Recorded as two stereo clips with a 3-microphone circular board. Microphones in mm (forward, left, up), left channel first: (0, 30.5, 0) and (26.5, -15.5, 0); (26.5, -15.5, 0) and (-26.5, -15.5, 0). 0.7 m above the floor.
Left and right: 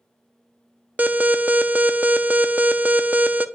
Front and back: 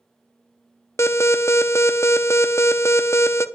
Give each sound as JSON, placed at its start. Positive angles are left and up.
{"t": 1.0, "sound": "an alarm", "azimuth_deg": -10, "distance_m": 0.5}